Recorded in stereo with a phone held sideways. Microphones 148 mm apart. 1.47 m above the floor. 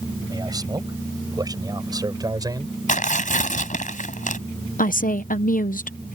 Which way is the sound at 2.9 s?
65° left (ahead or behind).